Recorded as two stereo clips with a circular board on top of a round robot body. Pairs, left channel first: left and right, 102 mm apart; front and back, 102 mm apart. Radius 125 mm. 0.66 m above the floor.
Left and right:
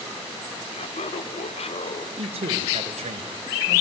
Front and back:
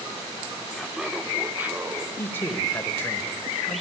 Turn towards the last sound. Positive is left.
turn(degrees=-70)